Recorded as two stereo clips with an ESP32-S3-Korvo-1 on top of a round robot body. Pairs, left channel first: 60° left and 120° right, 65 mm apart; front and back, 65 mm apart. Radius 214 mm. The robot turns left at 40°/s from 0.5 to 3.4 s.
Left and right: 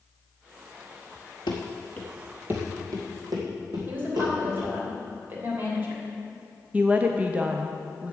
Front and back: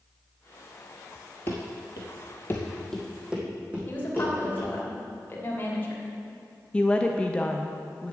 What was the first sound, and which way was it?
Running footsteps, 60° left.